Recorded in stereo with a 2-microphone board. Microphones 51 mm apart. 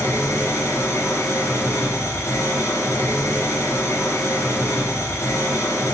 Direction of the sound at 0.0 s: 65° left (ahead or behind).